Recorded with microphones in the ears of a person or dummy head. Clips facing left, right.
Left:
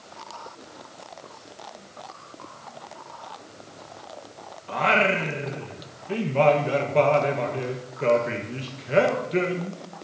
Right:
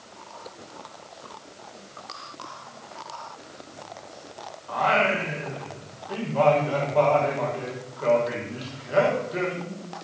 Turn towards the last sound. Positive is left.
turn(degrees=35)  # may be behind; listen again after turning